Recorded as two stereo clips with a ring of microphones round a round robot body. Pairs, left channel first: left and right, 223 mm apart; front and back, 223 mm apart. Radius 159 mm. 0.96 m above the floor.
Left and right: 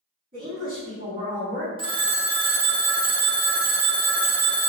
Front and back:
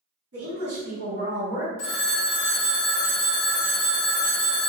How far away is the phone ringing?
About 0.5 m.